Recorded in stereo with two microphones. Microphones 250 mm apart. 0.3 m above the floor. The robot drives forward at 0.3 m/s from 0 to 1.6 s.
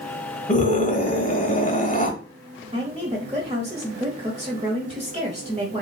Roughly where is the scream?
Left.